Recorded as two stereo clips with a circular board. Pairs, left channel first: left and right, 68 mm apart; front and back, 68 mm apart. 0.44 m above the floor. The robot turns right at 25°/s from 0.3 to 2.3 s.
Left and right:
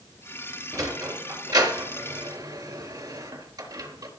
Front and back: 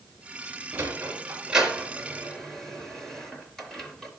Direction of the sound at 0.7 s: 125° right.